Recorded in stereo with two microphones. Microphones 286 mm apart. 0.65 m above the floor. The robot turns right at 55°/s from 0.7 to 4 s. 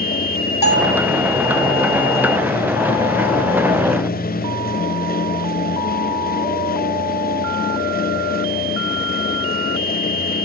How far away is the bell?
About 4 m.